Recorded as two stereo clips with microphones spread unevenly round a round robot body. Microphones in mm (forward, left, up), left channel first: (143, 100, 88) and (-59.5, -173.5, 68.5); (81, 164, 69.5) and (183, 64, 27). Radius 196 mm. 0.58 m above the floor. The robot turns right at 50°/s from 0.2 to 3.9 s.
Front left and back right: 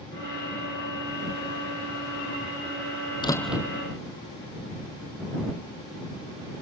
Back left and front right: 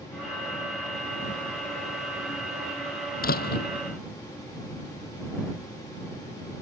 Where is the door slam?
130° left; by 3.7 s 155° left.